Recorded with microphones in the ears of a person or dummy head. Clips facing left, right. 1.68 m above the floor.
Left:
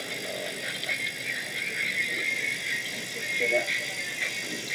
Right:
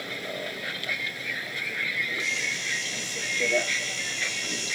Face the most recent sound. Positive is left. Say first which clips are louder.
# right 1 dB
turn(degrees=5)  # may be behind; listen again after turning